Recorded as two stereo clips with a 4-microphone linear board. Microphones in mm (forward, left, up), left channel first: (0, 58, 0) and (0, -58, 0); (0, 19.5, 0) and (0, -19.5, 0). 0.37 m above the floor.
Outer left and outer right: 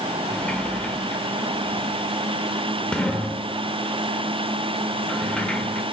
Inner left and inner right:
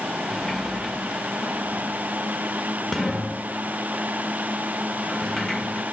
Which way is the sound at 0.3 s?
10° left (ahead or behind).